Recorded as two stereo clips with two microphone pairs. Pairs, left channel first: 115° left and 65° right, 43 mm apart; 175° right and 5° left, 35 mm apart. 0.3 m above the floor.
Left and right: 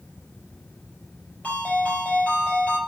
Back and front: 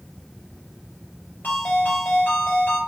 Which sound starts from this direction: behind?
A ringtone, at 1.4 s.